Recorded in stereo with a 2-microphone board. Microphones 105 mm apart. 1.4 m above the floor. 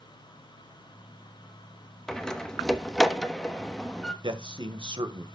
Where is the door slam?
5° left (ahead or behind), 1.0 m.